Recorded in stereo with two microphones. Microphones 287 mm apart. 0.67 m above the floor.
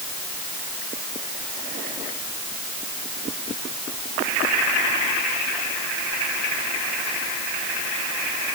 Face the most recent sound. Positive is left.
No sound to turn to.